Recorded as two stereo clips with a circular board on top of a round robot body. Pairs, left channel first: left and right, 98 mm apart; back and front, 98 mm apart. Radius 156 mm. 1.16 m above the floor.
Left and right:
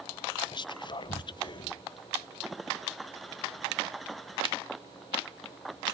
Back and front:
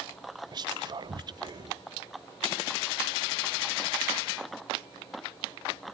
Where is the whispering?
45° left, 0.6 m.